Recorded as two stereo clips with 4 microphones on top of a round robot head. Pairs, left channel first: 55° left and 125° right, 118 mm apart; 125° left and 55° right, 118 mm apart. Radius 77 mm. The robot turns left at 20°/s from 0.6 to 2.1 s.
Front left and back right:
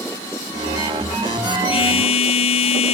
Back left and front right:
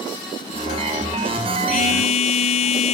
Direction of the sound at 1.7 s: 100° left.